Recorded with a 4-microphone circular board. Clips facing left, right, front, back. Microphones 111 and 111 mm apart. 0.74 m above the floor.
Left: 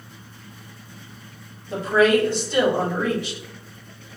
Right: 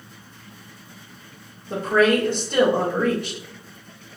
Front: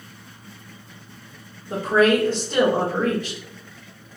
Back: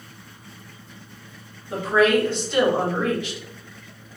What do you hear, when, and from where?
1.7 s a woman speaking: 50° right, 1.4 m